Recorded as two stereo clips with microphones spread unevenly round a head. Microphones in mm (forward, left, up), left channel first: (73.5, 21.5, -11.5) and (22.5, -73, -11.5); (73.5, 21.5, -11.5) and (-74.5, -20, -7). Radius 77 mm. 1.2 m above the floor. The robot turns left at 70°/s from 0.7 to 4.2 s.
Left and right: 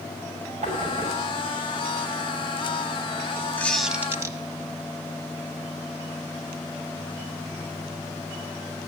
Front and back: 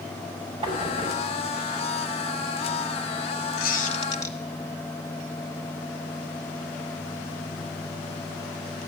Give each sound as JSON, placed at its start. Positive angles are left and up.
{"t": 0.6, "sound": "knocking", "azimuth_deg": -100, "distance_m": 6.5}
{"t": 3.6, "sound": "a squeak", "azimuth_deg": -10, "distance_m": 1.4}